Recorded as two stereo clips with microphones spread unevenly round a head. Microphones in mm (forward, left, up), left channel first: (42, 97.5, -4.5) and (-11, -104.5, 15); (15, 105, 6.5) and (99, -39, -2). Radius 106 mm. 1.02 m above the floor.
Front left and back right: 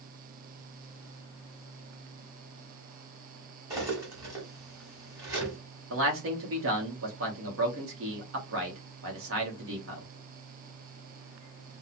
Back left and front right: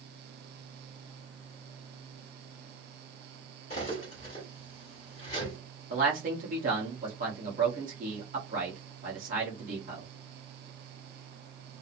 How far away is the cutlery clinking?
About 1.5 m.